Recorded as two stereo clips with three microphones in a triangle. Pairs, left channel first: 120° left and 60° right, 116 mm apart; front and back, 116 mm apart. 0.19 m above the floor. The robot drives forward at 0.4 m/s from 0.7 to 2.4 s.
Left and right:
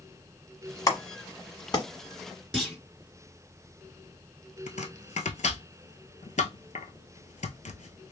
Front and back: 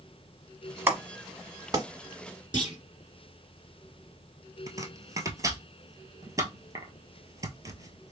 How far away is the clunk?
About 1.7 m.